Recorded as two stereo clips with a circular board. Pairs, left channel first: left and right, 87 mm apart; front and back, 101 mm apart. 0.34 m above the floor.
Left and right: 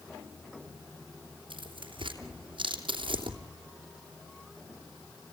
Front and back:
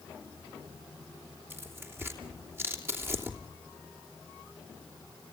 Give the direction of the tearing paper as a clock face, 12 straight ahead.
4 o'clock.